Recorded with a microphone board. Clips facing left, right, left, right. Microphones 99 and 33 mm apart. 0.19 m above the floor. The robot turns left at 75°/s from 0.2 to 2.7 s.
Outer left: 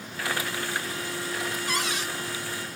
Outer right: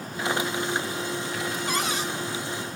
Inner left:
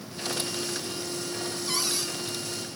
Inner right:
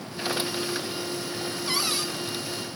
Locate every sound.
1.7 s a cupboard door: 20° right (ahead or behind), 1.7 m; by 2.1 s 25° right (ahead or behind), 1.7 m